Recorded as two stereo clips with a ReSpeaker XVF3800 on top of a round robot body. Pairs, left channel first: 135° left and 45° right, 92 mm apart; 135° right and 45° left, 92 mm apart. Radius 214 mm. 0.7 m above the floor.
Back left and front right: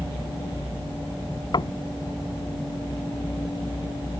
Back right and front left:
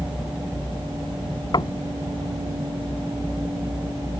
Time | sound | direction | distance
1.5 | knocking | straight behind | ?